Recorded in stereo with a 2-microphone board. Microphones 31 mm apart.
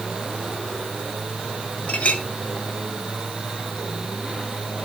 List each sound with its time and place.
1.9 s a clink: 40° left (ahead or behind), 2 m